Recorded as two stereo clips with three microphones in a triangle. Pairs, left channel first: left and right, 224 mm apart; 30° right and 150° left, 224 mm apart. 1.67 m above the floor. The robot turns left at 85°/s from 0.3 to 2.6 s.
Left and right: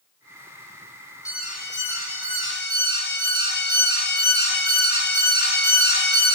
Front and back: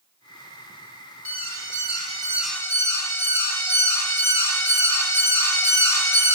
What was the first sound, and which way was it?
An alarm, 165° left.